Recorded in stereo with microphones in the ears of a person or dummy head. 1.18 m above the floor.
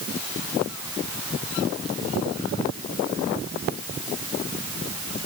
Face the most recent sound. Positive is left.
No sound to turn to.